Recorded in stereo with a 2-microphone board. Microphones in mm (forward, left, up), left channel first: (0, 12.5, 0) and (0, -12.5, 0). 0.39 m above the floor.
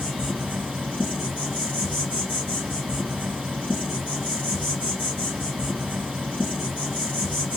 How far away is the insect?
About 2 m.